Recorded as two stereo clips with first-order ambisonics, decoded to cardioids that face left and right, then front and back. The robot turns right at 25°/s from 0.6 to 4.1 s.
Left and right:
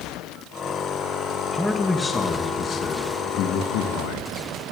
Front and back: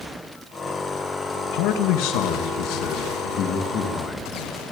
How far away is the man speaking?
About 1.9 m.